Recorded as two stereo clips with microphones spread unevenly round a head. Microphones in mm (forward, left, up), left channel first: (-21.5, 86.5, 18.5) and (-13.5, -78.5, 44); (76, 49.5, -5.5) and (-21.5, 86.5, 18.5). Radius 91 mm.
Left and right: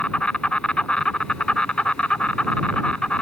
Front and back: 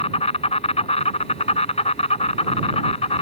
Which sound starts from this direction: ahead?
An insect, at 0.0 s.